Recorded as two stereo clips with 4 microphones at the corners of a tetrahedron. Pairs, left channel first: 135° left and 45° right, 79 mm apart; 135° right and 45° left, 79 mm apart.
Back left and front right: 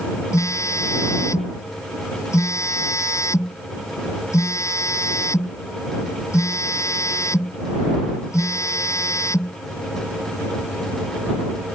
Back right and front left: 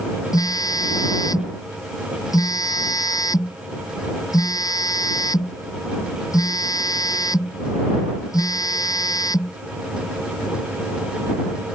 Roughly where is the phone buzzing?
Behind.